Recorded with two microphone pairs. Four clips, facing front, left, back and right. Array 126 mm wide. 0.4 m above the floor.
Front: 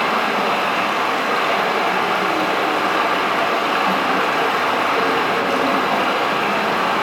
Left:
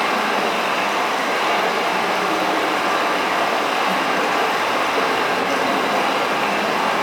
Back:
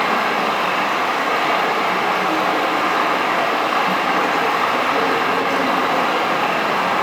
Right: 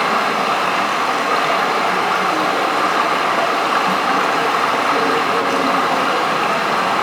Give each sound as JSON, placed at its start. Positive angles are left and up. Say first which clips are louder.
{"t": 0.0, "sound": "running water", "louder": "right 2 dB, even", "azimuth_deg": -115, "distance_m": 1.7}